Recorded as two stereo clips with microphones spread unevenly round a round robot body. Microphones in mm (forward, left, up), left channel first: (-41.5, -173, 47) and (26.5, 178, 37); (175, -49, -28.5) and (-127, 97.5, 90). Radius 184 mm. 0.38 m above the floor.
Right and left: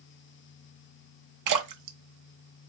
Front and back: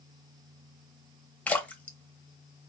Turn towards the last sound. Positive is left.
turn(degrees=50)